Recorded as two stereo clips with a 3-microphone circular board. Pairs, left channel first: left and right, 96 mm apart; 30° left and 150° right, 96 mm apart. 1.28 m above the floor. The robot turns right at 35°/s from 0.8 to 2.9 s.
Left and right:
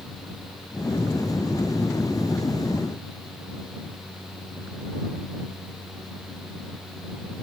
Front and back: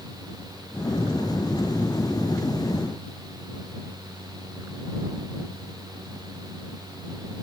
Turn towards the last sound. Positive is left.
No sound to turn to.